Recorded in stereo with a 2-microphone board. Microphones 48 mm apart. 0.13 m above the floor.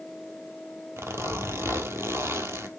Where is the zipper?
60° right (ahead or behind), 1.2 m.